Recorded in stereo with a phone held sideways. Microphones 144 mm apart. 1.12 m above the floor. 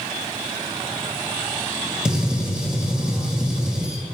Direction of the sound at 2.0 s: 5° right (ahead or behind).